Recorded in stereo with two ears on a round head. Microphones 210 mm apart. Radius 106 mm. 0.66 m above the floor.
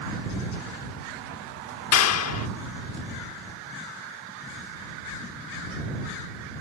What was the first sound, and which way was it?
A clap, 65° left (ahead or behind).